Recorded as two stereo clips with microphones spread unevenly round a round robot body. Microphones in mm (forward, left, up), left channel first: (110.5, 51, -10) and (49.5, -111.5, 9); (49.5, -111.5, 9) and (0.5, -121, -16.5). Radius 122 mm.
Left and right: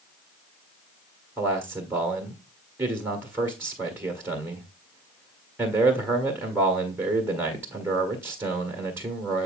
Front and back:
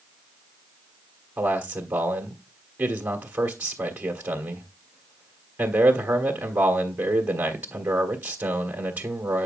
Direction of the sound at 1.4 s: 165° left.